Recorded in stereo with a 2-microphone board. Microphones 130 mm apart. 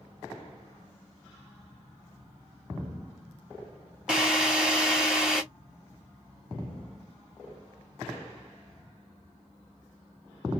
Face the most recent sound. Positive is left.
turn(degrees=-5)  # may be behind; listen again after turning